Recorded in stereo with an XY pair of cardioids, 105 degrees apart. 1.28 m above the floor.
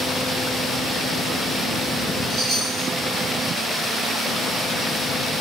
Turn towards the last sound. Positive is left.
turn(degrees=-50)